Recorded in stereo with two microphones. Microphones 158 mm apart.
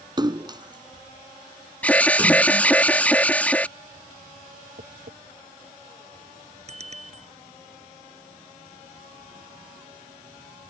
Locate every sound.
0.2 s a splash: 25° right (ahead or behind)
1.8 s an alarm: 10° left (ahead or behind)
4.8 s tapping: 85° right
6.7 s a bicycle bell: 45° right (ahead or behind)